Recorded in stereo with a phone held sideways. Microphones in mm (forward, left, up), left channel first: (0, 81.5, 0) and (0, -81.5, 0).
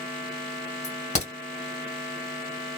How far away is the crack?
About 1.8 m.